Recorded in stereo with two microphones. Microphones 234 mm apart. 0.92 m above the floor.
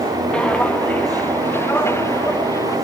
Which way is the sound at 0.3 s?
5° left (ahead or behind).